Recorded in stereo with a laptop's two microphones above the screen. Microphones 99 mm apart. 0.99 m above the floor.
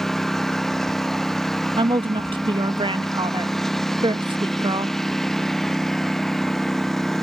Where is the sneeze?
I don't hear a sneeze.